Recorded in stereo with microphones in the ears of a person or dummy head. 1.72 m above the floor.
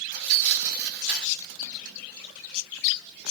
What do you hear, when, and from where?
0.1 s tearing paper: 65° right (ahead or behind), 2.5 m